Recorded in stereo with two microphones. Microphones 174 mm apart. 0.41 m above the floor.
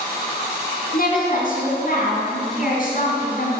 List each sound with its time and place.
0.9 s a woman speaking: 65° left (ahead or behind), 4 m